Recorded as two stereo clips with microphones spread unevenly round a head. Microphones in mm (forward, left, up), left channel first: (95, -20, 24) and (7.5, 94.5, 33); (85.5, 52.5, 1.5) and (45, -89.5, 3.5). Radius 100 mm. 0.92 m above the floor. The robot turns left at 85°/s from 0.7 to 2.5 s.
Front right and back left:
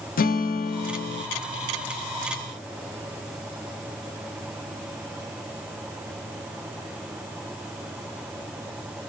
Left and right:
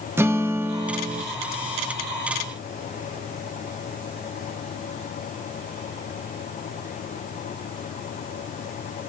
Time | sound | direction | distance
0.2 | a guitar | 30° right | 0.6 m